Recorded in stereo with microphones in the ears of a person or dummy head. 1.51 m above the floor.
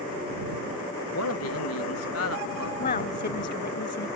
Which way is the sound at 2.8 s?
40° left (ahead or behind).